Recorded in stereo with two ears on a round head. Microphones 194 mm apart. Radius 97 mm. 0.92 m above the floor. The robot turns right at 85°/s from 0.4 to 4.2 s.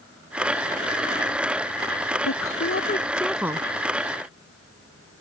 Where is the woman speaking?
85° left; by 3.7 s 150° right.